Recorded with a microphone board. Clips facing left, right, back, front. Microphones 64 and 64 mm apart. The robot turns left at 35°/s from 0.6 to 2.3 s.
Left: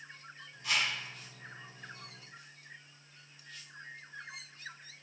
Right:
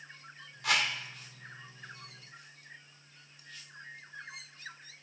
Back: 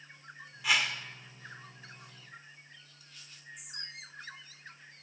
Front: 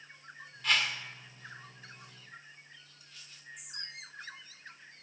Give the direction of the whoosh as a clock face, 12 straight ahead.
3 o'clock.